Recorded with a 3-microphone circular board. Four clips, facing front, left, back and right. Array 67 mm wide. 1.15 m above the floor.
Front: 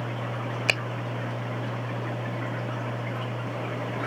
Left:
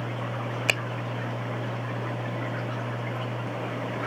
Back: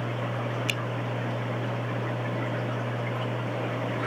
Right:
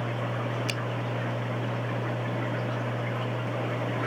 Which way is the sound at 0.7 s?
40° left.